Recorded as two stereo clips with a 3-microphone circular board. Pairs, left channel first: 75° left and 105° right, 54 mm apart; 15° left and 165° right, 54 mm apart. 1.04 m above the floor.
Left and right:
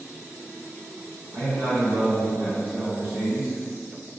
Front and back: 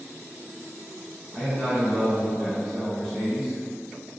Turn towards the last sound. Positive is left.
turn(degrees=-75)